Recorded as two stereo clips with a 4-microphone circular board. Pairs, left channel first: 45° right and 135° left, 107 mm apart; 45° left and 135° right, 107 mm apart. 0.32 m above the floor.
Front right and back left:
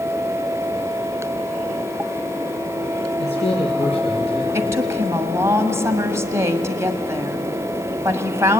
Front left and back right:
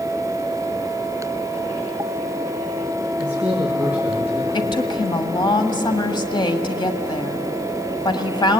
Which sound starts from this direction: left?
A woman speaking, at 4.5 s.